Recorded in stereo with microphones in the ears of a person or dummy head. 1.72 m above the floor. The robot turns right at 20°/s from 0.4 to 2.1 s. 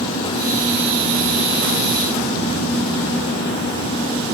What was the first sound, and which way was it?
Only background noise.